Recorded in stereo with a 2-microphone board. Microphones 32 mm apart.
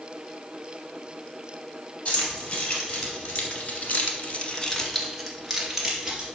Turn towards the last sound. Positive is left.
turn(degrees=-20)  # may be behind; listen again after turning